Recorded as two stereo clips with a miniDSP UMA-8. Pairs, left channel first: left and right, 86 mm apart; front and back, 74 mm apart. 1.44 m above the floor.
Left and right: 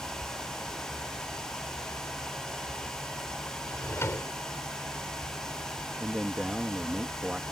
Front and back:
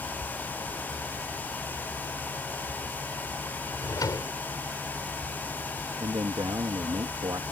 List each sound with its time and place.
3.7 s a drawer: 30° left
6.0 s a man speaking: 170° right